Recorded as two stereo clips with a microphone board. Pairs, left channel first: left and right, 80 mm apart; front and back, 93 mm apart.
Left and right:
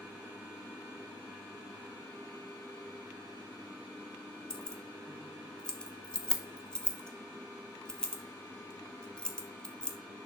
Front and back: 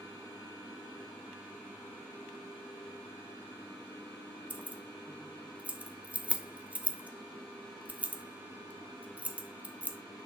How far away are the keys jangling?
About 0.7 m.